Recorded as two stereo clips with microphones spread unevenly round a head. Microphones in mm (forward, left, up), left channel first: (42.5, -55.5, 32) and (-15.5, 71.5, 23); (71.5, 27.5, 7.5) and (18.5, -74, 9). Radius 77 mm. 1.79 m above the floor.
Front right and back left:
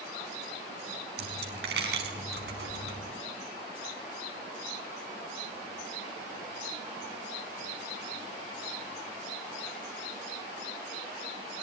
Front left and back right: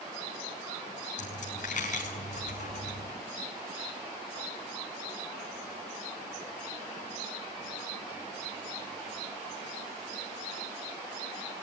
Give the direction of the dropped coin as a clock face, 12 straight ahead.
9 o'clock.